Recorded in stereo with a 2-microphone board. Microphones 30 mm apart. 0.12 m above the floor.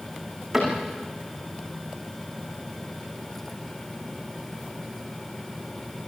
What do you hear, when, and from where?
0.5 s a cupboard door: 5° right (ahead or behind), 9.5 m